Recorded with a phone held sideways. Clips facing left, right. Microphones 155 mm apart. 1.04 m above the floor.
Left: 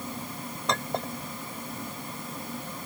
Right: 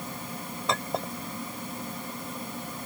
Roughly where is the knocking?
No knocking in this recording.